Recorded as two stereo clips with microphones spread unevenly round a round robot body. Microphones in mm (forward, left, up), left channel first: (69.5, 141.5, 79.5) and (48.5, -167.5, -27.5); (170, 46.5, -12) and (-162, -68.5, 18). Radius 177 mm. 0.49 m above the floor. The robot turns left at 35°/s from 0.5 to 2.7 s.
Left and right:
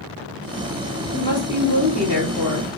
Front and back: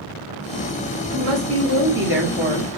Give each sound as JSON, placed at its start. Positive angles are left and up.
{"t": 1.1, "sound": "a woman speaking", "azimuth_deg": -170, "distance_m": 0.8}